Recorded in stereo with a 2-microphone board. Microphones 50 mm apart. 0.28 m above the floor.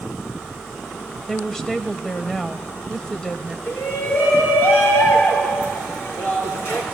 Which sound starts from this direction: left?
A shout, at 3.7 s.